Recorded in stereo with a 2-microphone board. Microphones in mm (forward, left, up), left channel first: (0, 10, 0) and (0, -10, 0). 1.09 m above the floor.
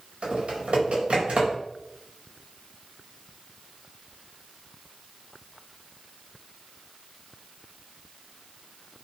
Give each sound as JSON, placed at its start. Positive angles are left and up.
{"t": 0.2, "sound": "typing on a keyboard", "side_deg": -90, "distance_m": 4.0}